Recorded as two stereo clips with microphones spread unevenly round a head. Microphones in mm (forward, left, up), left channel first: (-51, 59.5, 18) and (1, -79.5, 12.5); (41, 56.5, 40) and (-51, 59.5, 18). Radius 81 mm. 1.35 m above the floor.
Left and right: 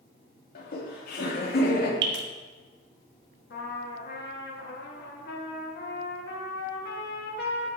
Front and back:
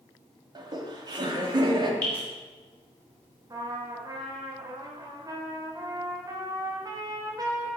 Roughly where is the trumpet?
Behind left.